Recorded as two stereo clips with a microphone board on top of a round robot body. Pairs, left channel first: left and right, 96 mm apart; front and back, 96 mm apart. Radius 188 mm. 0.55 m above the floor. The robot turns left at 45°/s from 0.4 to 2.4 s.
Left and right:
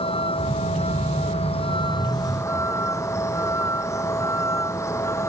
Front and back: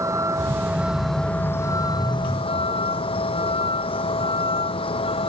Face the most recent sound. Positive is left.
turn(degrees=30)